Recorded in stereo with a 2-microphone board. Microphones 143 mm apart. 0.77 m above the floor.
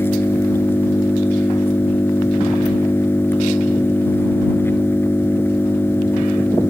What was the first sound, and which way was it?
An engine running, 15° left (ahead or behind).